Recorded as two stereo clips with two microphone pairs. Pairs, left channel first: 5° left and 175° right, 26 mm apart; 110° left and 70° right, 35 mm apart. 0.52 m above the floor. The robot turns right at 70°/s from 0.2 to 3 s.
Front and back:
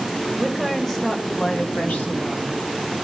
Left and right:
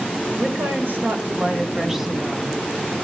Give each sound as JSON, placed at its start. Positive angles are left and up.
{"t": 0.4, "sound": "a woman speaking", "azimuth_deg": -105, "distance_m": 2.5}